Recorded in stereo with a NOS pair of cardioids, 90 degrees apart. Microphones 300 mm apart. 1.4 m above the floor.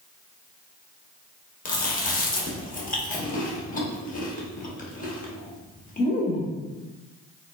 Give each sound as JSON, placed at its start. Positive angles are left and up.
{"t": 1.6, "sound": "chewing", "azimuth_deg": 25, "distance_m": 0.9}